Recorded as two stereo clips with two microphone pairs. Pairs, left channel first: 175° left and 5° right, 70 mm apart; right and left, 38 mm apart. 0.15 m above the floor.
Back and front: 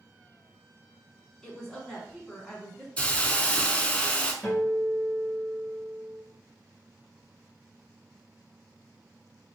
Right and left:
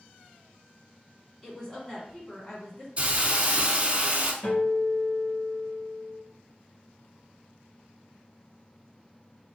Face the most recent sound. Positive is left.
turn(degrees=-110)